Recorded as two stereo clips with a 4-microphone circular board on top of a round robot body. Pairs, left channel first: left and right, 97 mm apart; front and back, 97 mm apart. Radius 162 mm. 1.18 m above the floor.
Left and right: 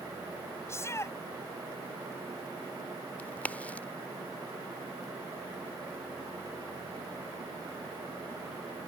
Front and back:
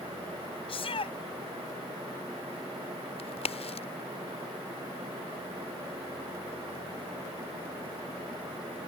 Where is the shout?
30° left.